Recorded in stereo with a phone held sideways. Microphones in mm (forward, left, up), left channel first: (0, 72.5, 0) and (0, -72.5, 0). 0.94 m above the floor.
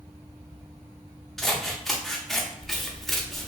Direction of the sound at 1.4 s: Centre (ahead or behind).